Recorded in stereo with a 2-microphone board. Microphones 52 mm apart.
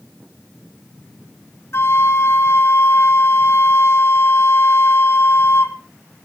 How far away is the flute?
About 1.8 m.